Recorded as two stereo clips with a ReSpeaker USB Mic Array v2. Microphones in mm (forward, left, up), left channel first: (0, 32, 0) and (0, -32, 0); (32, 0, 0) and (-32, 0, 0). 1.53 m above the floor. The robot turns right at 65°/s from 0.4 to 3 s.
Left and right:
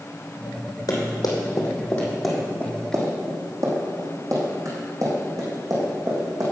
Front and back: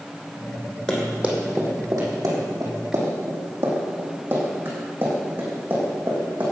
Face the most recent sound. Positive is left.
turn(degrees=-115)